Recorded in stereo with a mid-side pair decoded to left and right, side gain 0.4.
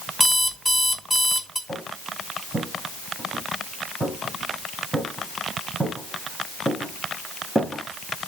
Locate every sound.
0.2 s an alarm clock: 5° right, 2 m
1.7 s footsteps: 15° right, 5 m